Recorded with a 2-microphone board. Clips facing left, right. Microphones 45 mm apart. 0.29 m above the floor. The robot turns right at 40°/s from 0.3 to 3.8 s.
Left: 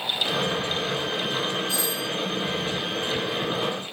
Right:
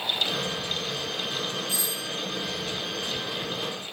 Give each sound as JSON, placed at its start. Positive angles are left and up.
{"t": 1.7, "sound": "a doorbell", "side_deg": -25, "distance_m": 4.5}